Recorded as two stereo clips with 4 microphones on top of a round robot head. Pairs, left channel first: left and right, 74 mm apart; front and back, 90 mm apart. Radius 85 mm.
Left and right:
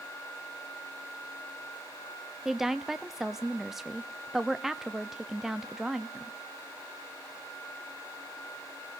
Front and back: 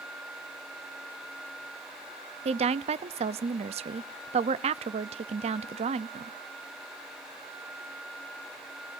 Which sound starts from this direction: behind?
A woman speaking, at 2.5 s.